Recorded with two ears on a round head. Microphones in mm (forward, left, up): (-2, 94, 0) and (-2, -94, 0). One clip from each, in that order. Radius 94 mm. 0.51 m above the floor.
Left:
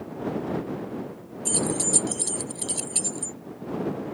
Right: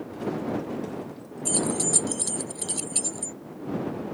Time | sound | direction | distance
1.4 | keys jangling | centre (ahead or behind) | ?